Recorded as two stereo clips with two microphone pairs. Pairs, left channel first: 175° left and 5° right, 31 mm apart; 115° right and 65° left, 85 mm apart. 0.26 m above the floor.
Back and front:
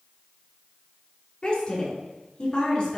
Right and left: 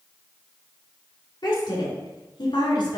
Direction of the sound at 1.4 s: 135° right.